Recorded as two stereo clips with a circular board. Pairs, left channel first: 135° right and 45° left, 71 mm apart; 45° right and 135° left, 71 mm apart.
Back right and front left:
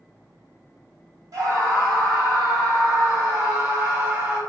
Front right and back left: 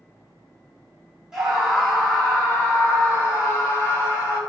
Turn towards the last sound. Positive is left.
turn(degrees=0)